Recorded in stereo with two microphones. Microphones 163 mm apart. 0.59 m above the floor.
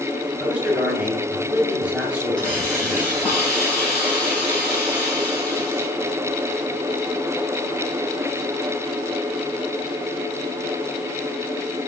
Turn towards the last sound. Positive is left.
turn(degrees=5)  # may be behind; listen again after turning